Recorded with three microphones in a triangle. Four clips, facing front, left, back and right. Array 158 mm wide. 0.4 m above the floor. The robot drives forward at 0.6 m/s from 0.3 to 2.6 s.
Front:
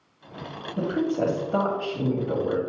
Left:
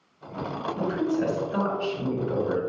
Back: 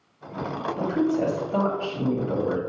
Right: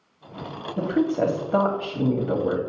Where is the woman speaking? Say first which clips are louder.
Right 4 dB, back 1 dB; 70° right, 2.5 m; by 2.6 s 100° right, 2.5 m.